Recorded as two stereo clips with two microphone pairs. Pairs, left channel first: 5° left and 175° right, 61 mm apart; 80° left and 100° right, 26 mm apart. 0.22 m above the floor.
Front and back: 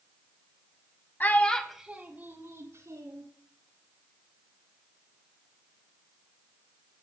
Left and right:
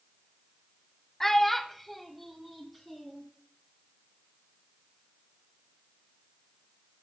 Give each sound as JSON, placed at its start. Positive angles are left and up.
{"t": 1.2, "sound": "a child speaking", "azimuth_deg": 20, "distance_m": 0.7}